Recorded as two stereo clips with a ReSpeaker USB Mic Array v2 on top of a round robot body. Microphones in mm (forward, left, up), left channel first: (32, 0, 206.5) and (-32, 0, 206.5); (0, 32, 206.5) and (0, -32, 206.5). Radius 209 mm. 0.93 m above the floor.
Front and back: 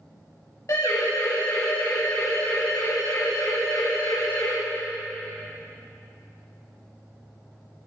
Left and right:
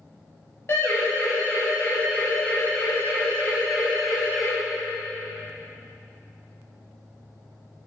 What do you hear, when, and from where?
0.7 s a siren: 40° left, 6.5 m; by 4.5 s 15° left, 8 m